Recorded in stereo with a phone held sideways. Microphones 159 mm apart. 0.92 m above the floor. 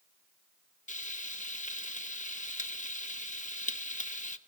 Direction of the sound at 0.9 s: 50° left (ahead or behind).